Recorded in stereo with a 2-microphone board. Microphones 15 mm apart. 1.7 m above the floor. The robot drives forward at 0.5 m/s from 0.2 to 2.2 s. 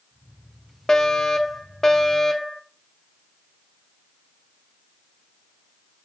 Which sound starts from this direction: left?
A fire alarm, at 0.9 s.